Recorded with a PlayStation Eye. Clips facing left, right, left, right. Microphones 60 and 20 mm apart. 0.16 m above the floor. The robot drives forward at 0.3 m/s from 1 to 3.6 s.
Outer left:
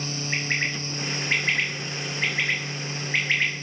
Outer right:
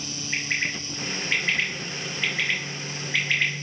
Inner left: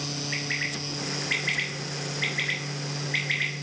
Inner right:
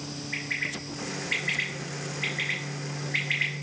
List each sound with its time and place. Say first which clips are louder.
0.3 s a bird: even, even; 50° left (ahead or behind), 1.4 m; by 3.5 s 40° left (ahead or behind), 1.7 m